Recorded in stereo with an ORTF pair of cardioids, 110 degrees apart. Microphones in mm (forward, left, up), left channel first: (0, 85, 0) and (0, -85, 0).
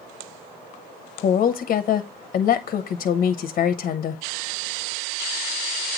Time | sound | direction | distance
1.2 | a woman speaking | 50° left | 0.7 m